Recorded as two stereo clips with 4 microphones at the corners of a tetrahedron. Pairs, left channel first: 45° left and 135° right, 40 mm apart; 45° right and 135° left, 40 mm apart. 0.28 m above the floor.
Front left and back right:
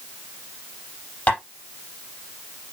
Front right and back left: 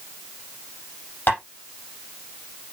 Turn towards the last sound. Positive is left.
turn(degrees=-10)